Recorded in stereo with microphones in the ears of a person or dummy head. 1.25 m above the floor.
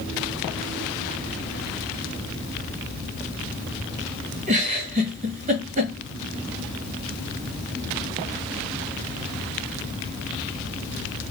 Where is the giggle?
35° right (ahead or behind), 2 m.